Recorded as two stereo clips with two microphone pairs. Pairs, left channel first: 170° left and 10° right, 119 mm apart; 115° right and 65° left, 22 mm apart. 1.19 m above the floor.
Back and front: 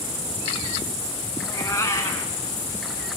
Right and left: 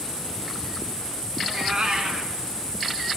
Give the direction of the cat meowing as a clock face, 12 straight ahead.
9 o'clock.